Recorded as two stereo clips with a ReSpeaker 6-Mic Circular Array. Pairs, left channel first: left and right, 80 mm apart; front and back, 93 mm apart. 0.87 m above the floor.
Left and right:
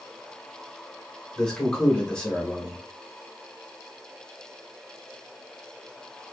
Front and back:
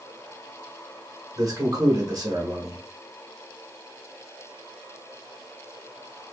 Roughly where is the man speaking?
Behind.